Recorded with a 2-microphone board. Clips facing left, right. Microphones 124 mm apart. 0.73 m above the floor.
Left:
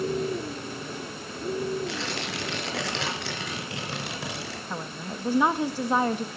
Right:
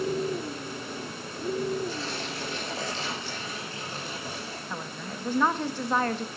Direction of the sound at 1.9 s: 75° left (ahead or behind).